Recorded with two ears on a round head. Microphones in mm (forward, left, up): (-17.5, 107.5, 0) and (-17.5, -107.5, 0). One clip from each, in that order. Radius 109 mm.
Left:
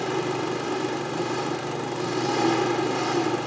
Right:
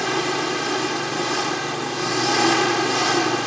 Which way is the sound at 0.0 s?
50° right (ahead or behind).